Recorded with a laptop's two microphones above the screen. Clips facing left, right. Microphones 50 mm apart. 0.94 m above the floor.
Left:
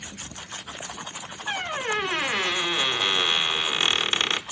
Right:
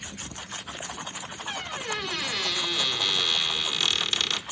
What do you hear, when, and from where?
1.5 s a squeak: 35° left (ahead or behind), 0.7 m